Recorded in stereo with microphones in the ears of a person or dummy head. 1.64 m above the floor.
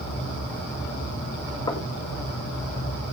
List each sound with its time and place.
1.7 s knocking: 20° left (ahead or behind), 1.9 m